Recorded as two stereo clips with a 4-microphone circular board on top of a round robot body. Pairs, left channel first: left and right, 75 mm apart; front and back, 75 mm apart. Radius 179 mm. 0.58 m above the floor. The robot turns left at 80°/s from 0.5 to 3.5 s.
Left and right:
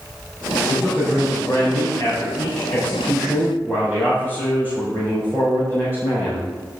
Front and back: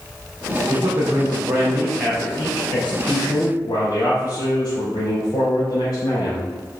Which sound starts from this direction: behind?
A man speaking, at 0.7 s.